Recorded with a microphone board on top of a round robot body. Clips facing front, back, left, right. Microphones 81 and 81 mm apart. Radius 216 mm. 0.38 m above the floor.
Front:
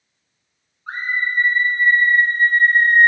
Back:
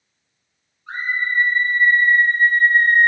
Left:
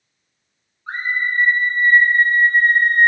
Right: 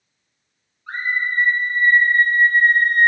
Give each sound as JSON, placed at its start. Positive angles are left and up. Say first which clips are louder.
{"t": 0.9, "sound": "a scream", "louder": "even, left 1 dB", "azimuth_deg": 35, "distance_m": 3.0}